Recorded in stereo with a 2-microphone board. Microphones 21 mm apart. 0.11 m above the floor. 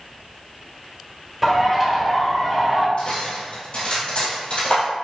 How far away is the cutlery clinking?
About 1.8 m.